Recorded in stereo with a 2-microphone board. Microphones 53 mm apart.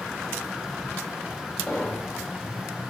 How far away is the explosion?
About 5 m.